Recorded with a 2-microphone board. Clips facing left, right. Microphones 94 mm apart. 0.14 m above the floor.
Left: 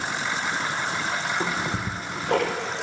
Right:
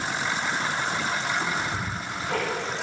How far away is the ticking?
About 1.1 m.